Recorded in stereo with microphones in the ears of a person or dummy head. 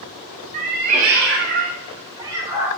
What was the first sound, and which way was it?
A cat meowing, 40° right (ahead or behind).